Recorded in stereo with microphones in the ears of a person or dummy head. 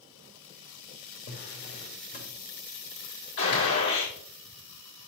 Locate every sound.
1.3 s a drawer: 45° left (ahead or behind), 1.6 m
3.4 s a gunshot: 75° left (ahead or behind), 4 m